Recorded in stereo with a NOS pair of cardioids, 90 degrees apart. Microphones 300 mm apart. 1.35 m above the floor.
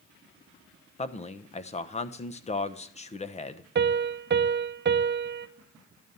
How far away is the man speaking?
About 0.8 m.